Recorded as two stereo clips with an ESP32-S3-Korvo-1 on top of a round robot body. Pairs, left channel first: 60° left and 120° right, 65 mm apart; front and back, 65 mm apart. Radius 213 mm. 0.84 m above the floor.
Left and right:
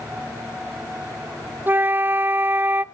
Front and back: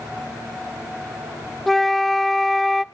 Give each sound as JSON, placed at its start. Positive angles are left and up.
{"t": 1.7, "sound": "a flute", "azimuth_deg": -85, "distance_m": 0.5}